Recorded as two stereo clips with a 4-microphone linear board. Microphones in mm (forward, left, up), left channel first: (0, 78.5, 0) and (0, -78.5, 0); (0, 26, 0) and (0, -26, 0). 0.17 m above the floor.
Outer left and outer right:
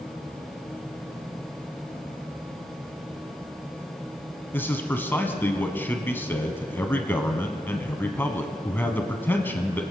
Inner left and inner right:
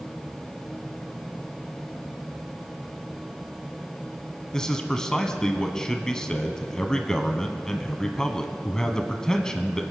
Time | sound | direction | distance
4.5 | a man speaking | 15° left (ahead or behind) | 1.0 m